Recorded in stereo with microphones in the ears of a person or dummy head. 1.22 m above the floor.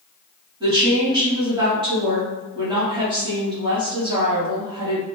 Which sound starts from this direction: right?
A woman speaking, at 0.6 s.